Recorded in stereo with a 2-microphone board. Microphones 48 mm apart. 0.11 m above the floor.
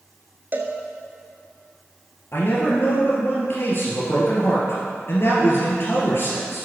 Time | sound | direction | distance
0.5 | a cowbell | 40° right (ahead or behind) | 0.8 m
2.3 | a man speaking | 50° left (ahead or behind) | 2 m